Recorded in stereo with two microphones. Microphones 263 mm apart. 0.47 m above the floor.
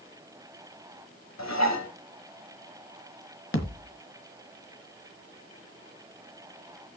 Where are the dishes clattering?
70° left (ahead or behind), 1.7 m.